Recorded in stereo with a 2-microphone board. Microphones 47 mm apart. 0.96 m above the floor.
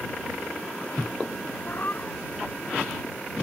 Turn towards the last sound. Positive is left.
turn(degrees=40)  # may be behind; listen again after turning